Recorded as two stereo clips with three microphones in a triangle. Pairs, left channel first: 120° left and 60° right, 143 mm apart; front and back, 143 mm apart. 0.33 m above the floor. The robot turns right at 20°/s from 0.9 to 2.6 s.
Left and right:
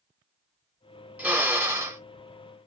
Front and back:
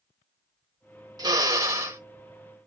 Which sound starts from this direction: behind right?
A drill, at 1.2 s.